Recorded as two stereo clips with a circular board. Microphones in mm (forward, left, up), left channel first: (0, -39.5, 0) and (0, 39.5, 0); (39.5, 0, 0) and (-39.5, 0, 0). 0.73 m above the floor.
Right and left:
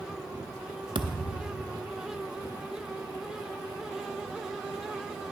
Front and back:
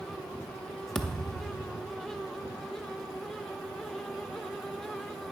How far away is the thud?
About 0.7 m.